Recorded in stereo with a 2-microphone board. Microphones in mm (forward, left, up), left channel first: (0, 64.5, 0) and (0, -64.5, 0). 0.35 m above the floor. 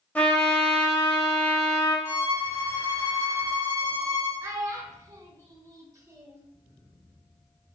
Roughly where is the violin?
Left.